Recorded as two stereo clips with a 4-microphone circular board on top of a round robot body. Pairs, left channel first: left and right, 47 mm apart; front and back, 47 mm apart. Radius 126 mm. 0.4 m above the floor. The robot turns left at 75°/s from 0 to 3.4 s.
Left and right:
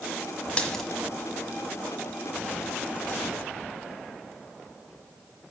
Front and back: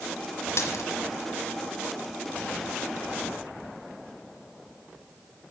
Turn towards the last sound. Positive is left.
turn(degrees=170)